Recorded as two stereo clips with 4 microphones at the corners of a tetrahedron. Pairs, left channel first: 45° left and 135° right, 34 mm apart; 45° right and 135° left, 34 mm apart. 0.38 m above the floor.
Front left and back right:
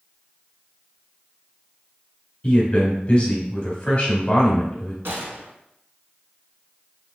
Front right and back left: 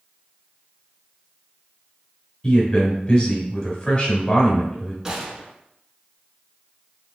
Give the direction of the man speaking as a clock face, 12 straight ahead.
12 o'clock.